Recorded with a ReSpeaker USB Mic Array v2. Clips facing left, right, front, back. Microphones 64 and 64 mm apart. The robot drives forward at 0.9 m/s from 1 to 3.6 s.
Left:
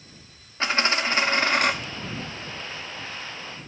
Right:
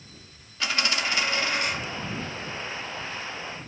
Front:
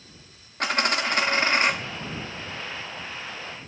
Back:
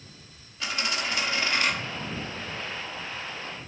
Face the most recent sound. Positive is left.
turn(degrees=150)